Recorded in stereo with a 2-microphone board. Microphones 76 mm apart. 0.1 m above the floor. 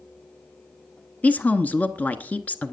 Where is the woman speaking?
20° left (ahead or behind), 1.1 m.